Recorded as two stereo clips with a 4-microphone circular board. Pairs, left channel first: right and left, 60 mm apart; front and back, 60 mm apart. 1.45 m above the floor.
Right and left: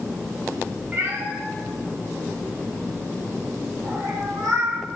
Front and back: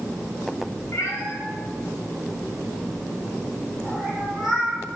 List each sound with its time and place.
0.9 s a cat meowing: 35° left, 3 m; by 4.8 s 105° left, 3.5 m